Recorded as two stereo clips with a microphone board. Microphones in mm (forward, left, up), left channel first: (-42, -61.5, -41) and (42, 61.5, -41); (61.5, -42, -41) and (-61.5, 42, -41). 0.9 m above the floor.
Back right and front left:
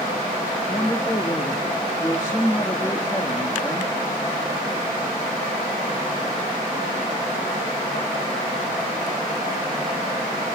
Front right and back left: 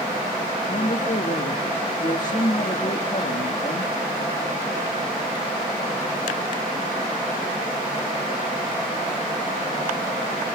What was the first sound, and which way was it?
A woman speaking, 60° right.